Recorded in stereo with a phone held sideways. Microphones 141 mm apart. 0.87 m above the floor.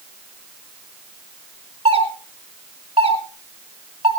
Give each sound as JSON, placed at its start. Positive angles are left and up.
{"t": 1.9, "sound": "a doorbell", "side_deg": -40, "distance_m": 3.0}